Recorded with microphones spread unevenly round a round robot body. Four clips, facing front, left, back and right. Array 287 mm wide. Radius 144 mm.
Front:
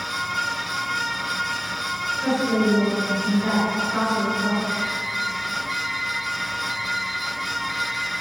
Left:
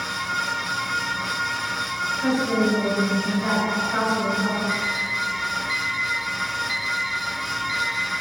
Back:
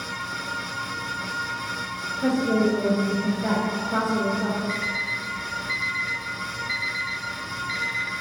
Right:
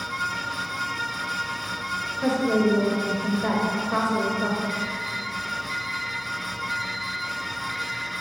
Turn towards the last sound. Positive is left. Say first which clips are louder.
# left 3 dB, front 2 dB
turn(degrees=130)